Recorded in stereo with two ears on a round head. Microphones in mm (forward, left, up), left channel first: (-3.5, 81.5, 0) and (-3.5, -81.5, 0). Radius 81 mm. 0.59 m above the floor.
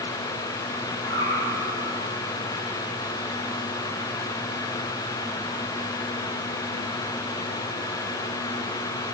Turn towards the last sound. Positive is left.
turn(degrees=25)  # may be behind; listen again after turning